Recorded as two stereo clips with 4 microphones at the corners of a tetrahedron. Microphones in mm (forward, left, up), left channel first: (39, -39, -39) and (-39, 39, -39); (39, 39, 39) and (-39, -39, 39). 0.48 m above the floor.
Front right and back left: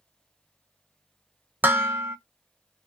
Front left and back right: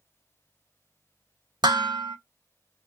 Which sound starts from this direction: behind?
Dishes clattering, at 1.6 s.